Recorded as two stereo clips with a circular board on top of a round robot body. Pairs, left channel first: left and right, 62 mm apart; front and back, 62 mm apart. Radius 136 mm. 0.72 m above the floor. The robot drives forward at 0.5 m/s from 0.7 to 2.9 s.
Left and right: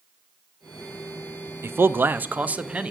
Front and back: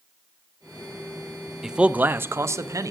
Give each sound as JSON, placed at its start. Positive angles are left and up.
{"t": 1.6, "sound": "a man speaking", "azimuth_deg": -100, "distance_m": 0.5}